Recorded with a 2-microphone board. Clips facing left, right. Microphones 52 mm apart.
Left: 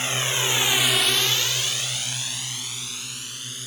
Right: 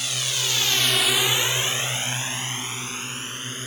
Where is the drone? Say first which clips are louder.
Left 3 dB; 30° left (ahead or behind); by 3.7 s 35° right (ahead or behind).